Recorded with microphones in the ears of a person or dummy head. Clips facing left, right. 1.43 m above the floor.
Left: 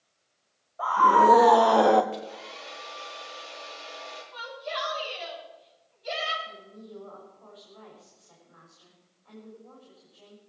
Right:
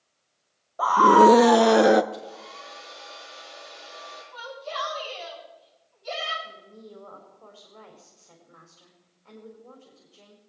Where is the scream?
60° right (ahead or behind), 0.6 m; by 2.0 s 10° right (ahead or behind), 0.8 m.